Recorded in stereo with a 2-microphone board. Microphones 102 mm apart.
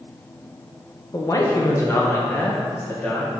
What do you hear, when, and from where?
1.1 s a man speaking: 35° left (ahead or behind), 0.9 m; by 3.3 s 20° left (ahead or behind), 1.9 m